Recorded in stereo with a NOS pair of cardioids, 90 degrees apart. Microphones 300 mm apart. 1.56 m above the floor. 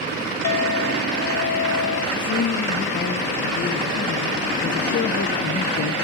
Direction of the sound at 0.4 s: 65° left.